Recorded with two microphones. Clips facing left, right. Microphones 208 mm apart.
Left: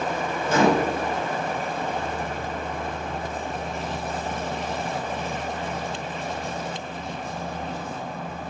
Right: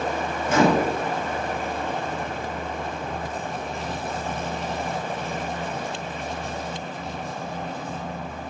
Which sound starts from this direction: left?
A microwave, at 0.5 s.